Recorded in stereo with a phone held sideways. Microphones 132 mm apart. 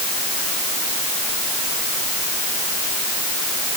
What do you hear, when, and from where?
Only background noise.